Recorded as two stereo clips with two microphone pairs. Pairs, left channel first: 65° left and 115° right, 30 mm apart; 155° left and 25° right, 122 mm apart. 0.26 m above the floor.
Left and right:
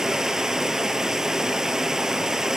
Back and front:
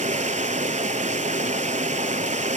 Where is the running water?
40° right, 0.8 m.